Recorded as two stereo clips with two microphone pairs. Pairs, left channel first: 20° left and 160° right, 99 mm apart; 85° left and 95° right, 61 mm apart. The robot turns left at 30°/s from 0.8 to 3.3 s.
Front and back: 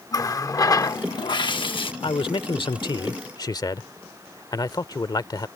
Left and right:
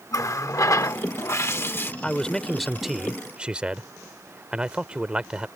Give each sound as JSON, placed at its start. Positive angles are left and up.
{"t": 0.1, "sound": "a running tap", "azimuth_deg": 70}
{"t": 2.0, "sound": "a man speaking", "azimuth_deg": 15}